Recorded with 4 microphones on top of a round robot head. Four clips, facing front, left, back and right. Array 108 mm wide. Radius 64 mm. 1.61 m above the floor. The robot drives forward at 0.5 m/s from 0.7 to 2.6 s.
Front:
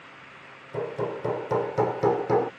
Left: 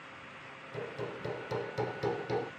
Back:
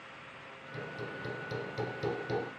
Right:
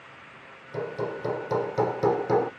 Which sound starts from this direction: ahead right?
Hammering, at 0.7 s.